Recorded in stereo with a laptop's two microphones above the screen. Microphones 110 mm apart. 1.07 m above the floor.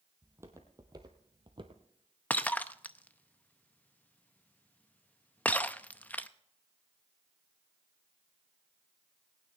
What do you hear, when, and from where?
0.2 s footsteps: 20° right (ahead or behind), 1.7 m; by 1.8 s 50° right (ahead or behind), 1.6 m
2.3 s breaking glass: 15° left (ahead or behind), 0.6 m